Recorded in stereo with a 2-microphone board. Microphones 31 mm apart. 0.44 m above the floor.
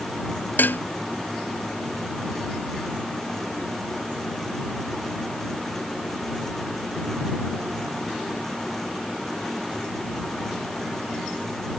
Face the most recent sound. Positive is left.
turn(degrees=85)